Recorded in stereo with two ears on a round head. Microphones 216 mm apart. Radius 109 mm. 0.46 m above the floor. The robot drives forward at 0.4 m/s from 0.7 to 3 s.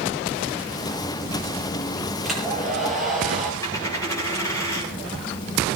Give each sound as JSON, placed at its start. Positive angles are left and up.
{"t": 2.2, "sound": "a hair dryer", "side_deg": 0, "distance_m": 7.0}
{"t": 3.6, "sound": "a dropped coin", "side_deg": 15, "distance_m": 6.0}